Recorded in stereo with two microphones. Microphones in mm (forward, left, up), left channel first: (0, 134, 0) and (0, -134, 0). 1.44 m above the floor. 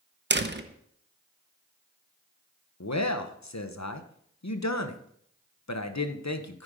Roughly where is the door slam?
Right.